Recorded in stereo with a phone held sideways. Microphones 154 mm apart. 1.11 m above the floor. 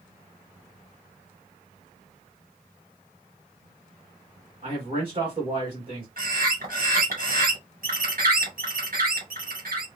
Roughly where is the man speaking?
Right.